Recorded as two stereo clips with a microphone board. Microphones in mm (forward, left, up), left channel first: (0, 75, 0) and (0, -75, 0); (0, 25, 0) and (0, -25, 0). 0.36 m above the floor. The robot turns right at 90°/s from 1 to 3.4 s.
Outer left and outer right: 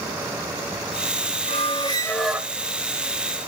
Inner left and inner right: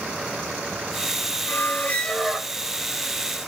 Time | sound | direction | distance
1.5 | a squeak | 110° left | 0.8 m